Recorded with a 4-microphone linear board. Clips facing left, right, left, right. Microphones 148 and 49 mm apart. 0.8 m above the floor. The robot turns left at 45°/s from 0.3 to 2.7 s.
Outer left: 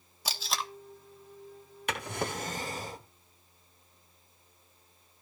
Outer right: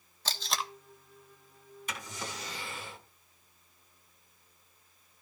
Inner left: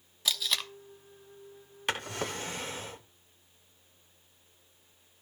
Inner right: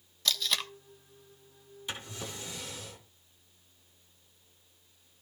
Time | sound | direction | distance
0.2 | tape being pulled | 10° left (ahead or behind) | 0.9 m
1.9 | a drawer | 80° left | 0.8 m